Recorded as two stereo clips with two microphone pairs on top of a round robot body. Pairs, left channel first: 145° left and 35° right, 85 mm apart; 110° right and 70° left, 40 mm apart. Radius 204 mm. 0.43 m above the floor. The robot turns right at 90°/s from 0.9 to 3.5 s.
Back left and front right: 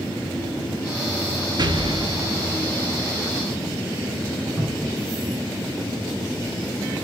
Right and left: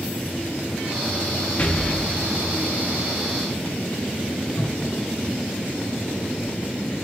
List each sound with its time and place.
1.6 s an explosion: 60° right, 0.7 m; by 2.6 s 35° left, 0.7 m
4.6 s a cupboard door: 110° right, 2 m